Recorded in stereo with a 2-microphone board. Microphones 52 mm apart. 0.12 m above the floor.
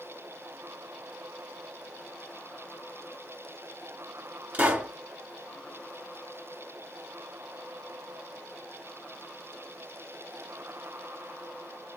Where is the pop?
30° right (ahead or behind), 1.6 m.